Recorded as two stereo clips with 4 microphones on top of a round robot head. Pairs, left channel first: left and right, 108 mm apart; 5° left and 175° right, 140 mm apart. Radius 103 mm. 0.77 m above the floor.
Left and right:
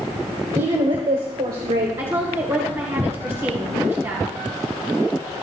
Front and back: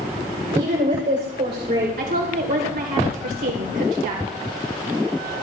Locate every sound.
0.5 s a woman speaking: 145° right, 3 m; by 1.9 s 130° right, 4 m
2.0 s a woman speaking: 160° right, 3.5 m